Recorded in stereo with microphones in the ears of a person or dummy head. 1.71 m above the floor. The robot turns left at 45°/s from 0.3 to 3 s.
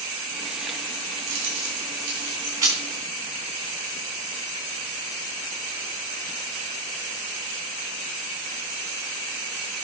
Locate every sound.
1.3 s keys jangling: 70° right (ahead or behind), 3.5 m; by 2.8 s 10° right (ahead or behind), 3.5 m